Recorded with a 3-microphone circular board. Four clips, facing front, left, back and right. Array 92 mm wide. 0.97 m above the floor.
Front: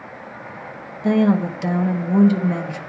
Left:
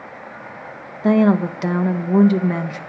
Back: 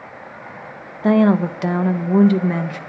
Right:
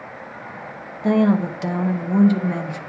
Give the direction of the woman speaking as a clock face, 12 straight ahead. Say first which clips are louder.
Left 2 dB, back 2 dB; 7 o'clock.